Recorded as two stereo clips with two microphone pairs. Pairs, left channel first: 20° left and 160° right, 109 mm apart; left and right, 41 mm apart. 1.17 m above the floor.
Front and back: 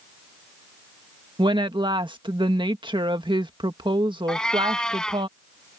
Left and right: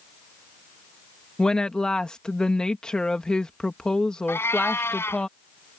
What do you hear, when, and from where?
1.4 s a woman speaking: 160° left
4.3 s a cat meowing: 105° left